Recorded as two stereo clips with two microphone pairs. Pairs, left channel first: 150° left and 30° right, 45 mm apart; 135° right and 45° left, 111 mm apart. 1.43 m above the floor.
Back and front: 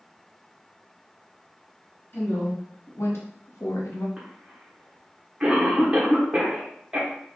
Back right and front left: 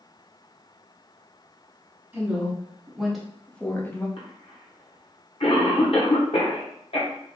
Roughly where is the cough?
Right.